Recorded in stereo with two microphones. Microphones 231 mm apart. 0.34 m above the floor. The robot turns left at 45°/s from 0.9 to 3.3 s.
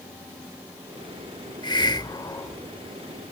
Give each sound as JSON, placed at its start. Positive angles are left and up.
{"t": 1.6, "sound": "a hiss", "side_deg": 20}